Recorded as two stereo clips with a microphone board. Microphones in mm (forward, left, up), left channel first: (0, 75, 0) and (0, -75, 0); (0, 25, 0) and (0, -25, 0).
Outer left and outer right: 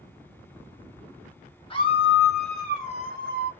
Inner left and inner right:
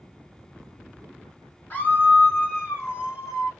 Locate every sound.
1.7 s a scream: 30° left (ahead or behind), 1.1 m; by 3.5 s 55° left (ahead or behind), 1.9 m